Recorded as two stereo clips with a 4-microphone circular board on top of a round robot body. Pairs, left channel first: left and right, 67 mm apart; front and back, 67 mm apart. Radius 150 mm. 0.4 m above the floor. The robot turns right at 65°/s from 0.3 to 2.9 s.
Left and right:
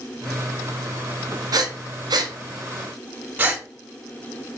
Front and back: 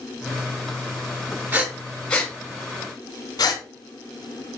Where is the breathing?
115° right, 0.9 m; by 3.6 s 25° right, 0.9 m.